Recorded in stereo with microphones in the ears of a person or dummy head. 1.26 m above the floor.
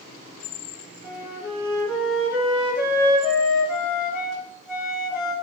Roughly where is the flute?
Centre.